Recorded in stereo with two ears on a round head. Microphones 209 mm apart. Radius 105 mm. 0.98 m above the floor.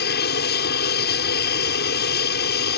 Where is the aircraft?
45° left (ahead or behind).